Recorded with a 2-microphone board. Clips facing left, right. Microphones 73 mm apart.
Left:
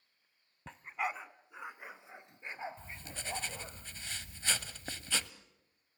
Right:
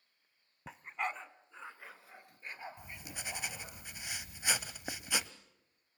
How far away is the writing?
About 0.7 m.